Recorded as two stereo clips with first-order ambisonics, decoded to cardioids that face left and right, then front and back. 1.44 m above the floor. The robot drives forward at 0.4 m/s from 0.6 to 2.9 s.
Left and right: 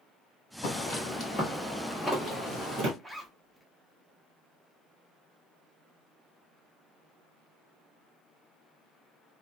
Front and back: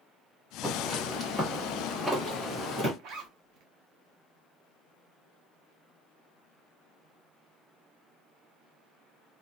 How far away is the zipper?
About 0.5 m.